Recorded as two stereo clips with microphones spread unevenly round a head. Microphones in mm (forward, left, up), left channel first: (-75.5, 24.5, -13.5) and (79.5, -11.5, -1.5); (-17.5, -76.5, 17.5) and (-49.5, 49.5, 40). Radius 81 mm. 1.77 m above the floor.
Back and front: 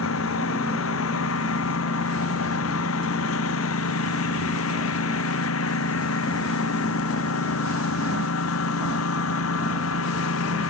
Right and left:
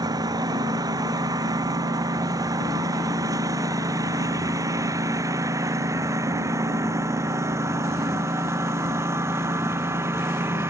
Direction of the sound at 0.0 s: 165° left.